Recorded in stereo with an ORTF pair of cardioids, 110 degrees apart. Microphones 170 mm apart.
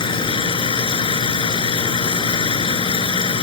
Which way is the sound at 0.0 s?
30° left.